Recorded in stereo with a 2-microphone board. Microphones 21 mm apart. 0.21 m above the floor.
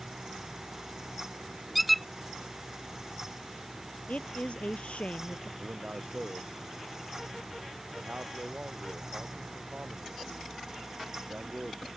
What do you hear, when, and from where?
1.8 s a squeak: 5° right (ahead or behind)
4.1 s a woman speaking: 65° left (ahead or behind)
5.6 s a man speaking: 75° right (ahead or behind)